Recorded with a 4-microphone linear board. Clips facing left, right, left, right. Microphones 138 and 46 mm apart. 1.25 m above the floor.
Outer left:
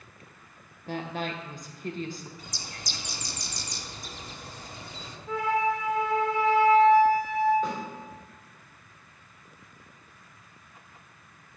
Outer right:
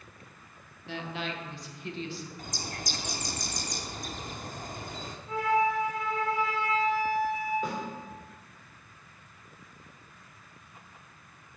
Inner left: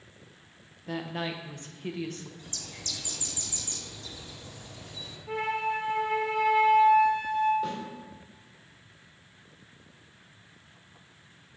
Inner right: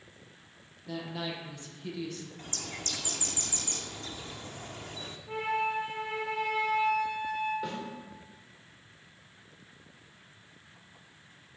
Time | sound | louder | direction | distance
0.9 | a woman speaking | outer left 3 dB, inner left 3 dB | 45° left (ahead or behind) | 0.8 m
2.4 | a bird | outer right 5 dB, inner right 3 dB | 50° right (ahead or behind) | 0.5 m
5.3 | a flute | even, inner left 1 dB | 80° left | 1.9 m
7.6 | a snare drum | outer left 2 dB, inner left 3 dB | 10° right (ahead or behind) | 2.5 m